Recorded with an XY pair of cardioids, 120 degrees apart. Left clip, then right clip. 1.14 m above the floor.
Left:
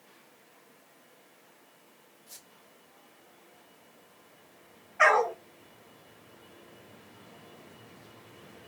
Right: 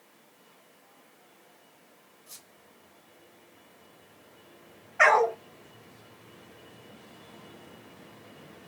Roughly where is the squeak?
Ahead right.